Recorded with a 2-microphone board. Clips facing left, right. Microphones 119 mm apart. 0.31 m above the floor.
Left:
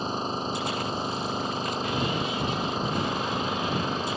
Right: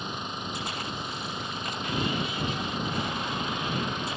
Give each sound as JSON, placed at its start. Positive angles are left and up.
{"t": 0.0, "sound": "an engine running", "side_deg": 35}